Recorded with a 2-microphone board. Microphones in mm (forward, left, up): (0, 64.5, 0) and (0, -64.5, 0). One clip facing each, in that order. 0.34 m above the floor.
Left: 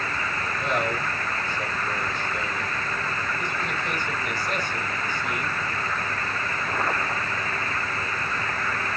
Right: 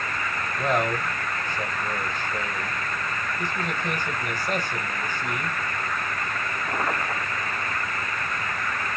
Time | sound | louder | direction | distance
0.6 | a man speaking | right 3 dB | 45° right (ahead or behind) | 1.4 m